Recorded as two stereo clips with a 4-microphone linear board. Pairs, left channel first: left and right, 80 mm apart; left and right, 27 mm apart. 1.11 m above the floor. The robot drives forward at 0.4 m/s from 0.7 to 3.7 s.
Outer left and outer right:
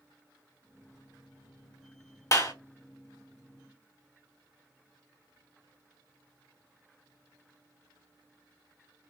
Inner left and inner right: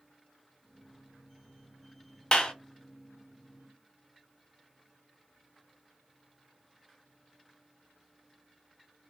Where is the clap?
40° left (ahead or behind), 1.3 m; by 2.5 s 45° left (ahead or behind), 1.3 m.